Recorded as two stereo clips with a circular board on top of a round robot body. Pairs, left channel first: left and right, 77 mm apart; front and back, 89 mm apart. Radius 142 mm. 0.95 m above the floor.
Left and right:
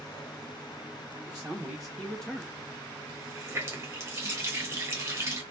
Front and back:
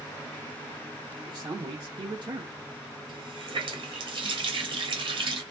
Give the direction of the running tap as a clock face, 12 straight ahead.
5 o'clock.